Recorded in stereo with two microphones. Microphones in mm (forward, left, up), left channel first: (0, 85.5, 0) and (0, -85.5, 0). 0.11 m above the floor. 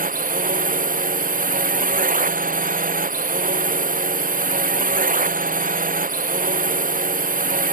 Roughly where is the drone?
Right.